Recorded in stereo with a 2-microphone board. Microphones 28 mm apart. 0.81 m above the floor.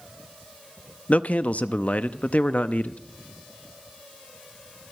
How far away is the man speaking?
About 0.6 m.